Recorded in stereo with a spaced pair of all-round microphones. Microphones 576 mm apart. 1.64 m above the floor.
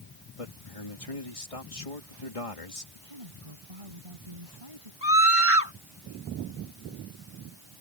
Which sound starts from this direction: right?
A woman speaking, at 3.0 s.